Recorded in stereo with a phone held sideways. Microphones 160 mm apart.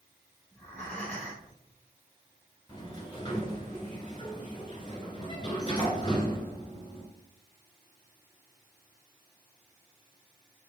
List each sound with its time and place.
0.5 s breathing: 5° left (ahead or behind), 2.5 m
2.7 s a sliding door: 25° left (ahead or behind), 2 m